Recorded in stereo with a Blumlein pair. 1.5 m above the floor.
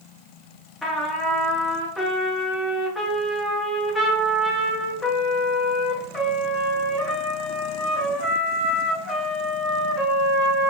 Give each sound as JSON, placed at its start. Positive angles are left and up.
{"t": 0.8, "sound": "a trumpet", "azimuth_deg": 10, "distance_m": 0.6}